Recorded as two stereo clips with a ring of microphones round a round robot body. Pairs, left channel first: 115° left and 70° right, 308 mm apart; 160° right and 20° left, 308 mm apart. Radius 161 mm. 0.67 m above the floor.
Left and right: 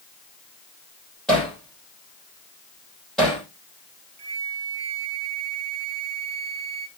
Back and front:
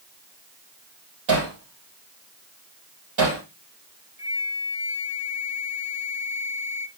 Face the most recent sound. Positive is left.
turn(degrees=-30)